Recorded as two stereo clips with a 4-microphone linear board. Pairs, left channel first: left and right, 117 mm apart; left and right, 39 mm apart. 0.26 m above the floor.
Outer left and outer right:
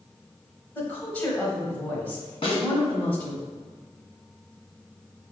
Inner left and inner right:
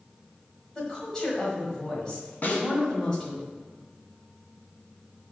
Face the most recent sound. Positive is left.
turn(degrees=55)  # may be behind; listen again after turning